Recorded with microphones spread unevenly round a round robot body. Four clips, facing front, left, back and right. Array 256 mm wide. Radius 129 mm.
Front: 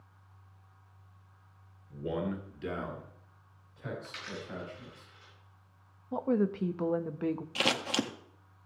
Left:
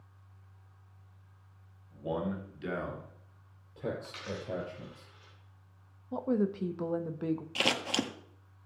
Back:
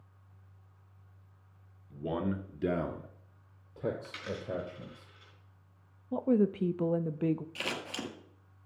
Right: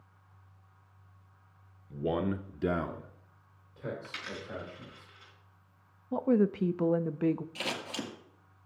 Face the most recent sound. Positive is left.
turn(degrees=35)